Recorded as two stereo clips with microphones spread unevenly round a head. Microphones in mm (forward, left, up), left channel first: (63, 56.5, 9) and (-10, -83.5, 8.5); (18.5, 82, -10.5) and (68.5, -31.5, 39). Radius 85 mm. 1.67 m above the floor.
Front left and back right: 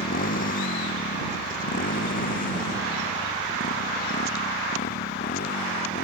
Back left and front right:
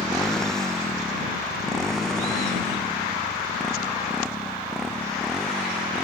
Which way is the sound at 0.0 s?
25° left.